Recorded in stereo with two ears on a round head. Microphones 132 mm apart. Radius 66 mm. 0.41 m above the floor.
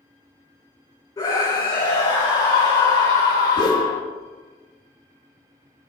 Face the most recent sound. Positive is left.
turn(degrees=30)  # may be behind; listen again after turning